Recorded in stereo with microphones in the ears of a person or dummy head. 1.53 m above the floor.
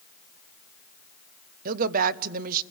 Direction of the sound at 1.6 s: 50° right (ahead or behind).